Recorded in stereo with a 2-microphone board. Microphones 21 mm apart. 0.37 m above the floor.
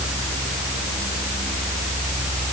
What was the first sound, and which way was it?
Only background noise.